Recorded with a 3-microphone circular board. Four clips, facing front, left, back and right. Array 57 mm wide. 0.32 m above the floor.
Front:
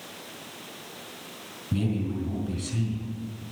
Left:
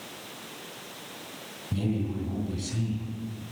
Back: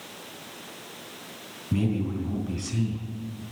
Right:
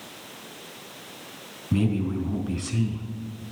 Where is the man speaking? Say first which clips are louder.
Right 5 dB, back 2 dB; 105° right, 3 m.